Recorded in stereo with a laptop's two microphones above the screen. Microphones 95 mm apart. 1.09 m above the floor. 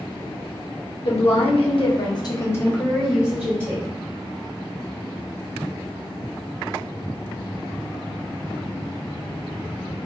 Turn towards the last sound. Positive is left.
turn(degrees=-30)  # may be behind; listen again after turning